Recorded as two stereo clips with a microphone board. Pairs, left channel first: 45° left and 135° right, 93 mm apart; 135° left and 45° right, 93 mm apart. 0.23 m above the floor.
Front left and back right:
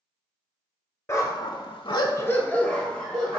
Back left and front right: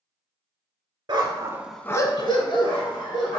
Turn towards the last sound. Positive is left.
turn(degrees=130)